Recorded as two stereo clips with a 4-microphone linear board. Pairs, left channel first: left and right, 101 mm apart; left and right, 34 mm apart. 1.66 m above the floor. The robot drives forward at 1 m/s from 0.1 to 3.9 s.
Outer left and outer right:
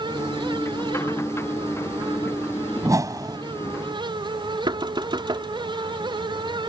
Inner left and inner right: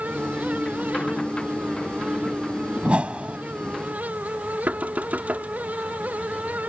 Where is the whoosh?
35° right (ahead or behind); by 3.4 s 40° right (ahead or behind).